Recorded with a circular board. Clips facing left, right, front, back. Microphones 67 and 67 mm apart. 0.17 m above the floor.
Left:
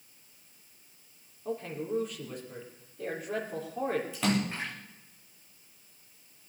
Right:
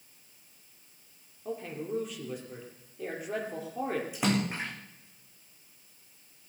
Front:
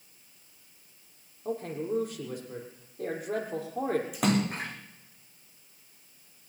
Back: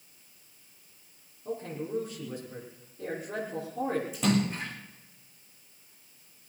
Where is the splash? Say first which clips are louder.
Even, even; 20° right, 3.5 m.